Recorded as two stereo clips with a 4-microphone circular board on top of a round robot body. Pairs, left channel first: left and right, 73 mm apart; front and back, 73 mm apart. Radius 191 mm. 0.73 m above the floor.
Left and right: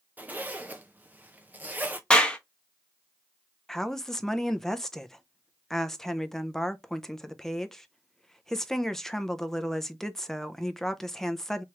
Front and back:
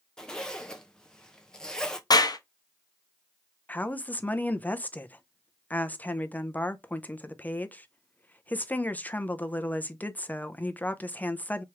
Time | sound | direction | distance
0.2 | a zipper | 65° right | 1.0 m
2.1 | a clap | 15° left | 1.0 m
3.7 | a woman speaking | 15° left | 0.8 m